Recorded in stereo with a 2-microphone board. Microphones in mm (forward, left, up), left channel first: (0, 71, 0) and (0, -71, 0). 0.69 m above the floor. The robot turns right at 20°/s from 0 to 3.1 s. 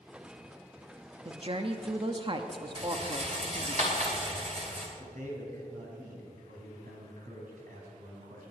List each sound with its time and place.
1.2 s a woman speaking: 90° right, 0.7 m; by 3.8 s 55° right, 0.7 m
2.8 s a rattle: 45° right (ahead or behind), 2.5 m; by 4.9 s 55° right (ahead or behind), 2.5 m
5.0 s a man speaking: 75° right (ahead or behind), 4.5 m